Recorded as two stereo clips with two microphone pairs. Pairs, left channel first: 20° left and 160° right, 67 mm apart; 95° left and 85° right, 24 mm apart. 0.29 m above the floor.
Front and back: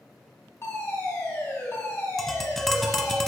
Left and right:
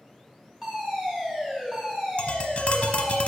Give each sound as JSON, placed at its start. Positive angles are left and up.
{"t": 0.6, "sound": "a fire alarm", "azimuth_deg": -15, "distance_m": 3.0}
{"t": 2.2, "sound": "tapping", "azimuth_deg": 105, "distance_m": 0.9}